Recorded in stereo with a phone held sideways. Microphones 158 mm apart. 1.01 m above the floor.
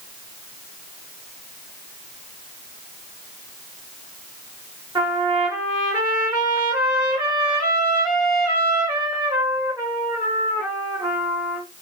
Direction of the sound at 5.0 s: 25° right (ahead or behind).